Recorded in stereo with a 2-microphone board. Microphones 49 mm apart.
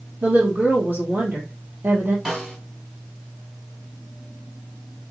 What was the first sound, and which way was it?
A woman speaking, 40° right (ahead or behind).